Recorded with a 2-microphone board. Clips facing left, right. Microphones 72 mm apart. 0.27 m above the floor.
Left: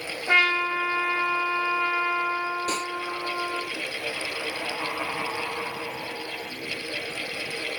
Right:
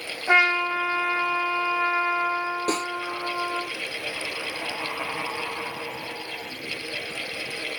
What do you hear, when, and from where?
0.3 s a trumpet: 20° right (ahead or behind), 1.6 m
2.7 s a snare drum: 45° right (ahead or behind), 3 m